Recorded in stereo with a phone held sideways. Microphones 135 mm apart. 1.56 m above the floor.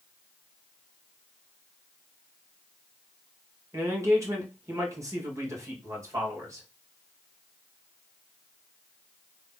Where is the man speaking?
20° right (ahead or behind), 1.6 m.